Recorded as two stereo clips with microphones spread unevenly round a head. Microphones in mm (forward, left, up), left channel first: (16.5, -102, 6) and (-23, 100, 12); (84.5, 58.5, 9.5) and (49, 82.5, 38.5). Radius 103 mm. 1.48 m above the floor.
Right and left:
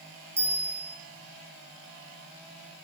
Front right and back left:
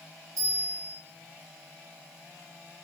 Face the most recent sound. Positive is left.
turn(degrees=180)